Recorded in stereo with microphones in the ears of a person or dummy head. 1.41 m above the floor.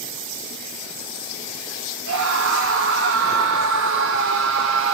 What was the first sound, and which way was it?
A scream, 75° right (ahead or behind).